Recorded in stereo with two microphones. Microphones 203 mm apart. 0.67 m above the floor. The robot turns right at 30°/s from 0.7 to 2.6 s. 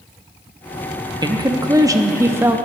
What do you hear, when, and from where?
1.2 s a woman speaking: 20° right (ahead or behind), 0.7 m; by 2.6 s 10° right (ahead or behind), 0.7 m